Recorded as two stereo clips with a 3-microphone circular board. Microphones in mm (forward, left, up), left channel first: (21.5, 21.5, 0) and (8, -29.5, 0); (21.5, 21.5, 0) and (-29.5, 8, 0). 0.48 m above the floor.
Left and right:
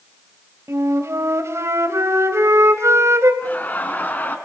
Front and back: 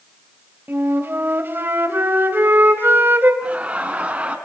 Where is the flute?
120° right, 2.5 m.